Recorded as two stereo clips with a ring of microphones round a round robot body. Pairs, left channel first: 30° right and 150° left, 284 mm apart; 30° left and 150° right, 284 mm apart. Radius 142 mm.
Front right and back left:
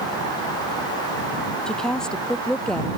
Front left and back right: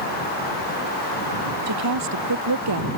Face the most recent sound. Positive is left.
turn(degrees=-120)